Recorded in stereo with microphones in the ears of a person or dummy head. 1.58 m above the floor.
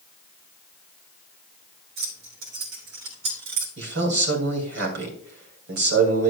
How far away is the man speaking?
About 2.5 m.